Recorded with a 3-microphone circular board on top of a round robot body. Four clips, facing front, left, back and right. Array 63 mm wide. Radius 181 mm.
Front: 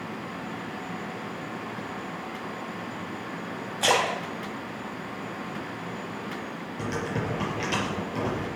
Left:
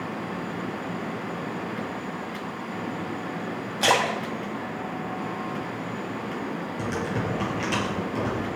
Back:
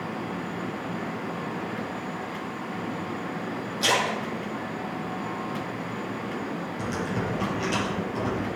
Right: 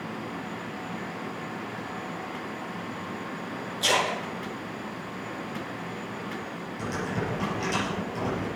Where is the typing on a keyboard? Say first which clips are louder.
Left 1 dB, front 1 dB; 45° left, 6 m.